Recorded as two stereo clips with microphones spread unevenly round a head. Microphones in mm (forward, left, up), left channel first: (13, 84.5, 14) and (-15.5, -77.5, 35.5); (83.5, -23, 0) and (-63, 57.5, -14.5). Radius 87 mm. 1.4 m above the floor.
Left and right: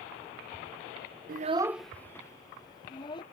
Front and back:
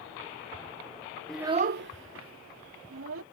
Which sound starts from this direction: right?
A child speaking, at 1.3 s.